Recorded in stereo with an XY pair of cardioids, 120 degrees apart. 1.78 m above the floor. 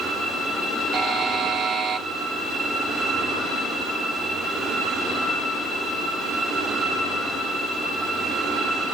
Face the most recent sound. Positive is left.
turn(degrees=-50)